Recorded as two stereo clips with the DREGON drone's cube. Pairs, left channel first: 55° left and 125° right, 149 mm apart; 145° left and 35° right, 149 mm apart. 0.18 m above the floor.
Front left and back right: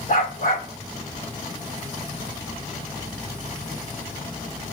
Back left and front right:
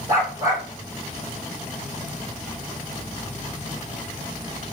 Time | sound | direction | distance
0.1 | a dog barking | 30° left | 3 m